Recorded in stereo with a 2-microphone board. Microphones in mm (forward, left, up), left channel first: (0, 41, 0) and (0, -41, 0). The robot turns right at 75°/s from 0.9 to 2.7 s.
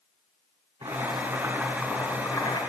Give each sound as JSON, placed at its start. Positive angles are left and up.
{"t": 0.8, "sound": "boiling", "azimuth_deg": -70, "distance_m": 5.5}